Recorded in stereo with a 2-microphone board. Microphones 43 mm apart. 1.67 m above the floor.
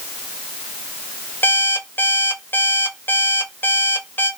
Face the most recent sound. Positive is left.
turn(degrees=55)  # may be behind; listen again after turning